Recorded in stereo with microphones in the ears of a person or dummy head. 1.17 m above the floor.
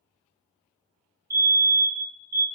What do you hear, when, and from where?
1.3 s a fire alarm: 15° right (ahead or behind), 1.0 m